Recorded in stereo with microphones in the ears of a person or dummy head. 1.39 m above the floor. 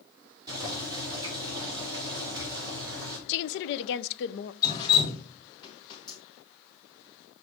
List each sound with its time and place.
0.5 s boiling: 20° right (ahead or behind), 3.5 m
3.3 s a woman speaking: 65° left (ahead or behind), 0.7 m
4.6 s dripping: 25° left (ahead or behind), 1.6 m